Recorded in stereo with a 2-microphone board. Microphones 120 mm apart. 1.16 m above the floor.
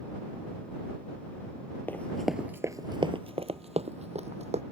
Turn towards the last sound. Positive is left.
turn(degrees=-60)  # may be behind; listen again after turning